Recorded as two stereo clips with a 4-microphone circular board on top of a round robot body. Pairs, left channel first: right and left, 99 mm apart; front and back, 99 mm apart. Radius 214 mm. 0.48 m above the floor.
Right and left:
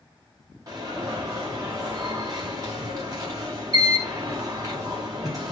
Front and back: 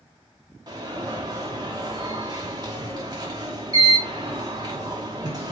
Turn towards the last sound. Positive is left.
turn(degrees=135)